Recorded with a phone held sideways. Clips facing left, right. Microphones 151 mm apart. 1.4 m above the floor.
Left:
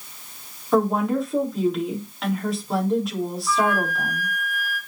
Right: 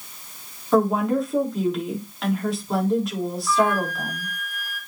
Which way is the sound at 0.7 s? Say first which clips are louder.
Right 1 dB; centre (ahead or behind).